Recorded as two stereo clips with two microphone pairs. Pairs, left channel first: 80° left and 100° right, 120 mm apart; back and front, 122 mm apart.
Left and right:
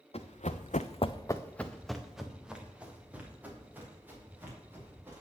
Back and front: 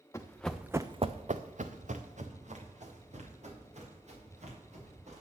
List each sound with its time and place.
0.1 s running footsteps: 110° left, 1.2 m; by 5.2 s 25° right, 5.5 m